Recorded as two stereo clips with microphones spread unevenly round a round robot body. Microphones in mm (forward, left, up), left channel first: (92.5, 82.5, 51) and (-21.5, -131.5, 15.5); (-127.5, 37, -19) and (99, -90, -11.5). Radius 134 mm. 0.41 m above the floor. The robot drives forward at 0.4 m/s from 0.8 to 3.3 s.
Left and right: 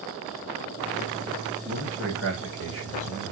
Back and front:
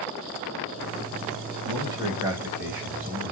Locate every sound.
1.6 s a man speaking: 100° right, 2.5 m; by 3.3 s 115° right, 3 m